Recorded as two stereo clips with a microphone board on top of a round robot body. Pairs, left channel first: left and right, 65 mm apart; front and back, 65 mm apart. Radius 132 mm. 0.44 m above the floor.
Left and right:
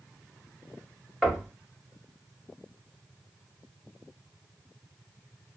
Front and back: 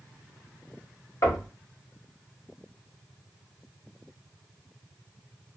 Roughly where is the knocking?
Ahead.